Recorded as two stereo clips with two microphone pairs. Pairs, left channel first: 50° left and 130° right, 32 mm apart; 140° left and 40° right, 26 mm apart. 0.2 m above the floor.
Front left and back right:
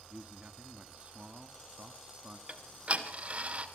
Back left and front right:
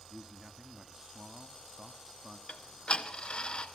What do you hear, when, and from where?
0.1 s a man speaking: 100° right, 1.4 m
2.5 s ticking: 170° right, 1.8 m